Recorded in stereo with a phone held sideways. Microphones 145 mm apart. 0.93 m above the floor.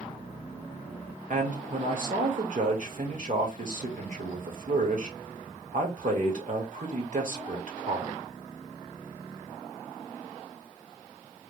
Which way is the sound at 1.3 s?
60° right (ahead or behind).